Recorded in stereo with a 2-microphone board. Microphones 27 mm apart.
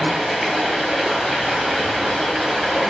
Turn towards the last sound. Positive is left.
turn(degrees=0)  # may be behind; listen again after turning